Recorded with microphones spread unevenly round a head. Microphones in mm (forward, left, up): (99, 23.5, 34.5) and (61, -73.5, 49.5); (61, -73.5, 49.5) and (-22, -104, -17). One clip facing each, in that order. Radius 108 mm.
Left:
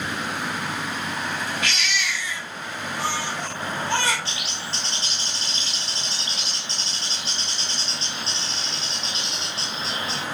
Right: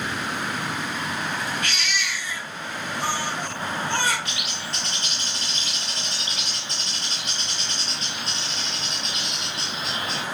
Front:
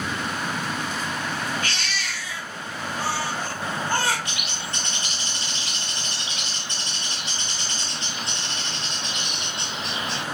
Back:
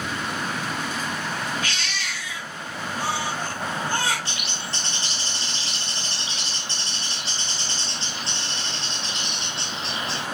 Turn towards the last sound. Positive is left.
turn(degrees=140)